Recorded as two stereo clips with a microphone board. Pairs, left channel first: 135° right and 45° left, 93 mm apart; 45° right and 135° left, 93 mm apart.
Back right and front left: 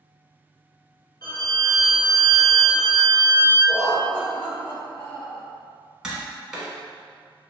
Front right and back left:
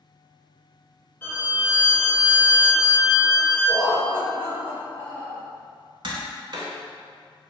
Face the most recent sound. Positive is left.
turn(degrees=125)